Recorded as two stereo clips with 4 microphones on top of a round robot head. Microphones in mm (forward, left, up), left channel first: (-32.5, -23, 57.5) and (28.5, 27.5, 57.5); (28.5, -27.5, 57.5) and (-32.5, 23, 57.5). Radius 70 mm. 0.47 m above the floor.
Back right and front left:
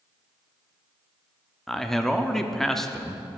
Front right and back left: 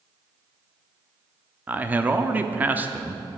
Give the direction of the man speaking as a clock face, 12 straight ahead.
7 o'clock.